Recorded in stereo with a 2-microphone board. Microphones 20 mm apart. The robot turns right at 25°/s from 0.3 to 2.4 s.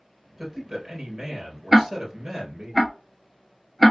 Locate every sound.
0.4 s a man speaking: 160° right, 2.5 m; by 2.7 s 110° right, 2.5 m
1.7 s ticking: 10° right (ahead or behind), 0.5 m; by 3.9 s 5° left (ahead or behind), 0.5 m